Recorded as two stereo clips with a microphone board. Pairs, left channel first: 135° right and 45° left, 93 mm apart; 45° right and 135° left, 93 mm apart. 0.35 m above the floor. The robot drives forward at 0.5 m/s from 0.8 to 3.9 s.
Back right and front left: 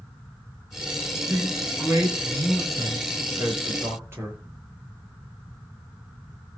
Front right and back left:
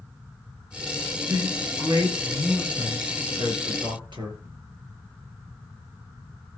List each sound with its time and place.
1.3 s a man speaking: 95° left, 6 m; by 4.4 s 105° left, 6 m